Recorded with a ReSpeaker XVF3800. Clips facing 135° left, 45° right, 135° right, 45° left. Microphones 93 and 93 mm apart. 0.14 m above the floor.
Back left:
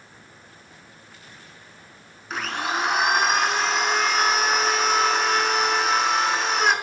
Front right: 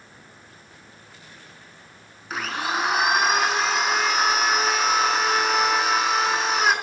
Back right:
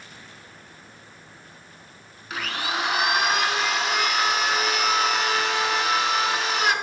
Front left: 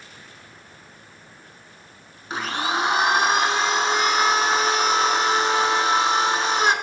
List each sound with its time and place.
2.3 s a blender: 40° left, 0.8 m